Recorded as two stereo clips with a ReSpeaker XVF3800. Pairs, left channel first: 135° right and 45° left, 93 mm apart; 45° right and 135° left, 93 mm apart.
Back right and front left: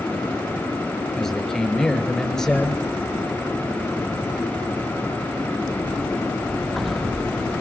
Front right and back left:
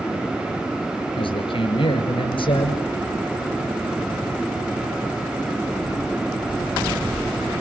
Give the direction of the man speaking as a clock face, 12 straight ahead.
2 o'clock.